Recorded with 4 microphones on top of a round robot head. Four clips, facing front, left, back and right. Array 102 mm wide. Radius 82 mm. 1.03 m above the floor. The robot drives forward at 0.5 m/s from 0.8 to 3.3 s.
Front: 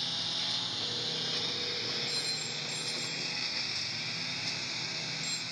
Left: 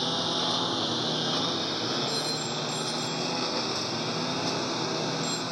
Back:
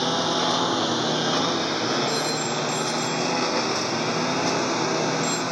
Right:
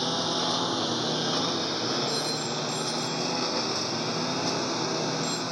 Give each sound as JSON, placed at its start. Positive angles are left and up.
{"t": 0.0, "sound": "a lawn mower", "azimuth_deg": -175}
{"t": 2.1, "sound": "a phone ringing", "azimuth_deg": -175}